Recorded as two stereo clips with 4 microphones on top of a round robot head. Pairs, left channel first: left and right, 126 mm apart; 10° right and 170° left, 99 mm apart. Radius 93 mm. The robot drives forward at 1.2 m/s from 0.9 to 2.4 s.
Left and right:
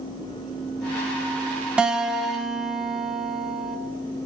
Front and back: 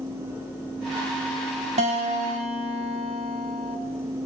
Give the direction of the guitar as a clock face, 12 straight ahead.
6 o'clock.